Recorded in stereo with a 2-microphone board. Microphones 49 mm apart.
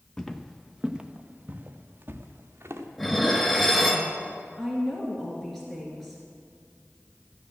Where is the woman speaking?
5° left (ahead or behind), 2.5 m.